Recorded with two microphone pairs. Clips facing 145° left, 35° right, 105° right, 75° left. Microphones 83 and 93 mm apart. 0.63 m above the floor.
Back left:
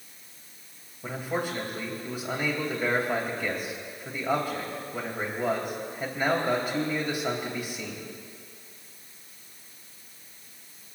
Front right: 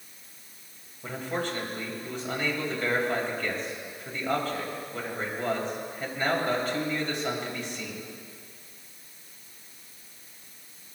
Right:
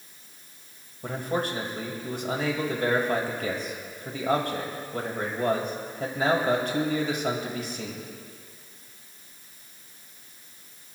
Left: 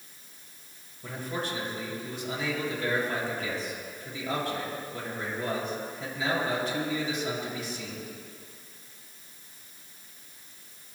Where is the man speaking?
140° right, 2.5 m.